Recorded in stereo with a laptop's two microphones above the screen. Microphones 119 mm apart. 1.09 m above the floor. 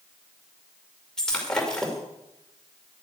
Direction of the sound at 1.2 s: 5° left (ahead or behind).